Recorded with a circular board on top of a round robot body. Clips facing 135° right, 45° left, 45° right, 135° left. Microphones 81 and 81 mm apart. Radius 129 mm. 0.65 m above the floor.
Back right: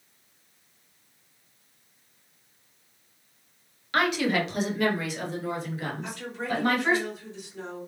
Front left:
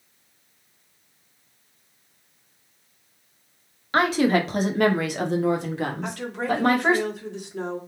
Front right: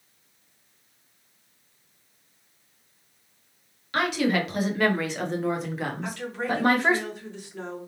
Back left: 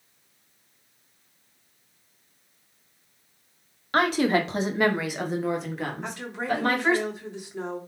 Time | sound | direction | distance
3.9 | a woman speaking | 100° left | 2 m
6.0 | a woman speaking | 60° left | 3 m